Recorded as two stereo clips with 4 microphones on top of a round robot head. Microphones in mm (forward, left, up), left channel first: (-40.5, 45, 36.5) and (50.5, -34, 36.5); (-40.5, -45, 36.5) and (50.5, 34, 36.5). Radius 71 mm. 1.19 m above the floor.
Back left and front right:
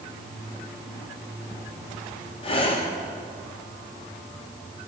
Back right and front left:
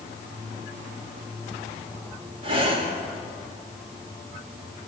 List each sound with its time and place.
2.4 s breathing: 90° left, 3 m